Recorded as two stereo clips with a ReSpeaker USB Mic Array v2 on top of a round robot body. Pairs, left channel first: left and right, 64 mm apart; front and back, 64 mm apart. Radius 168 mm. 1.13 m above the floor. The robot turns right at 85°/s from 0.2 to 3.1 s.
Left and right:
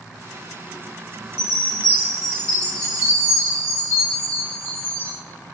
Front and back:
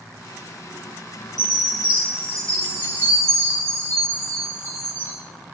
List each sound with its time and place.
1.4 s a chime: 15° right, 1.2 m; by 5.2 s 130° left, 1.2 m